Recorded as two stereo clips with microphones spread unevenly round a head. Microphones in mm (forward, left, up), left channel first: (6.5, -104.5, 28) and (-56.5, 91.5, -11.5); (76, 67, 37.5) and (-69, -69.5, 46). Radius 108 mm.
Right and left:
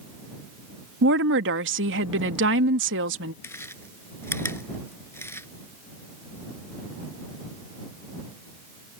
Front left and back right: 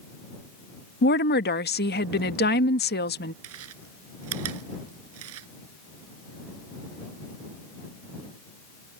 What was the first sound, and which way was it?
A woman speaking, 80° left.